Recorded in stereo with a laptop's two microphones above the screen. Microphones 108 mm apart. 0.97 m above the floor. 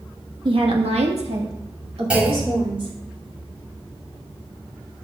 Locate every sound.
0.5 s a woman speaking: 50° right (ahead or behind), 1.2 m; by 2.9 s 55° right (ahead or behind), 4 m
2.1 s a clunk: 10° right (ahead or behind), 3 m